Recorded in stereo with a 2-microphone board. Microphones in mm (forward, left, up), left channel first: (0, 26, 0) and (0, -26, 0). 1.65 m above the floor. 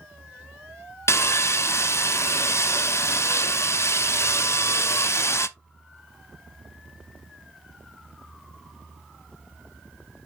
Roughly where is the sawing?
Left.